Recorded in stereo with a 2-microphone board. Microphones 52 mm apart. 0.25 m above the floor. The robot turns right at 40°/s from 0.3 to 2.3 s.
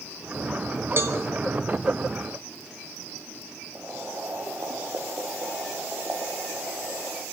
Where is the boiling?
50° right (ahead or behind), 6.5 m.